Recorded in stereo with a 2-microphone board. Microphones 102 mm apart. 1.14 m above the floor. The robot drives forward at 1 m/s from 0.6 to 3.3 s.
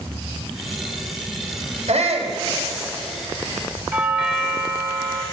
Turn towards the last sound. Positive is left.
turn(degrees=-15)  # may be behind; listen again after turning